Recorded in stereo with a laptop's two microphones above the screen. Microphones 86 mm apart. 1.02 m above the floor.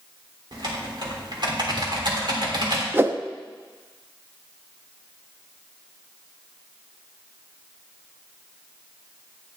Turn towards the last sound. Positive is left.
turn(degrees=-25)  # may be behind; listen again after turning